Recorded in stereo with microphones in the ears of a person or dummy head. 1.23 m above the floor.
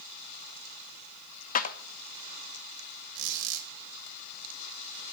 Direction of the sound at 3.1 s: 70° right (ahead or behind).